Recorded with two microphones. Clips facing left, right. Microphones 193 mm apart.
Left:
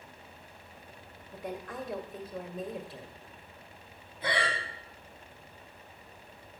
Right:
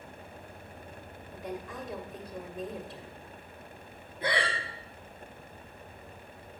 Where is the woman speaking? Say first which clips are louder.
Even; centre (ahead or behind), 1.4 m.